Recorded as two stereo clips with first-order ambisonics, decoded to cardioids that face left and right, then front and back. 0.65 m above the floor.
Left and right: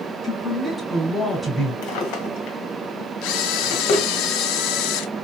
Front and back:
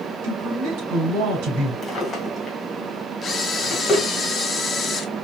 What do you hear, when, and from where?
0.2 s a man speaking: 170° right, 2.5 m
1.8 s a drawer: 75° left, 1.6 m
3.2 s a camera shutter: 70° left, 0.6 m